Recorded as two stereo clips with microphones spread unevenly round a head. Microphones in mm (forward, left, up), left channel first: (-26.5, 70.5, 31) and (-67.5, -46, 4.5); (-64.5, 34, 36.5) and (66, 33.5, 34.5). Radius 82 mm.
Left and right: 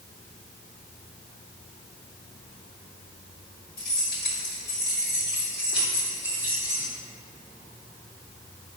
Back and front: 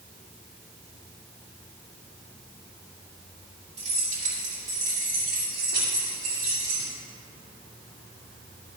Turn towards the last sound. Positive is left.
turn(degrees=-5)